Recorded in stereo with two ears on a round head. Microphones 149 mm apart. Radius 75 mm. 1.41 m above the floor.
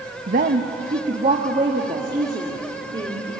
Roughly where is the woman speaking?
Right.